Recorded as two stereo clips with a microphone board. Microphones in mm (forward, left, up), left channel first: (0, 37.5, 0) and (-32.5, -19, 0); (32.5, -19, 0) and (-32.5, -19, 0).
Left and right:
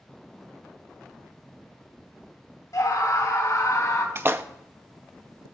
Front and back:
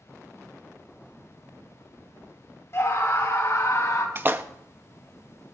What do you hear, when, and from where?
2.7 s a scream: 40° left, 1.9 m; by 4.0 s 35° left, 2.5 m
4.2 s a splash: 145° right, 0.6 m